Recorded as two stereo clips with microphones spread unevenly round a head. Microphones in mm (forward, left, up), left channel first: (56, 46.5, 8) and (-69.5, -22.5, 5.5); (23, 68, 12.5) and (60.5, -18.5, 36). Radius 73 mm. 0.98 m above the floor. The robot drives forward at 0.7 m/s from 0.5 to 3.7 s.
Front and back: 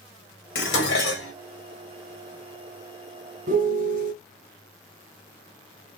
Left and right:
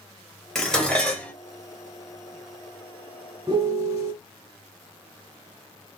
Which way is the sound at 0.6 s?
25° left.